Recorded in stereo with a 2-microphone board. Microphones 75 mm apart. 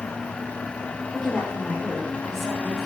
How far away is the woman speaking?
About 2.5 m.